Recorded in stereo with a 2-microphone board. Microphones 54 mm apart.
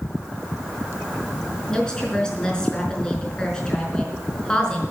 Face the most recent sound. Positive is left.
turn(degrees=15)  # may be behind; listen again after turning